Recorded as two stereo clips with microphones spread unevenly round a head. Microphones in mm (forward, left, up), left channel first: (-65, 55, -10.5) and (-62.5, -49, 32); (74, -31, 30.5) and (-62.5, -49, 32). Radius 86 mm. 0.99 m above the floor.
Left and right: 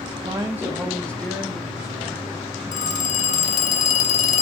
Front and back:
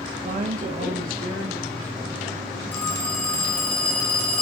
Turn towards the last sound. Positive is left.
turn(degrees=90)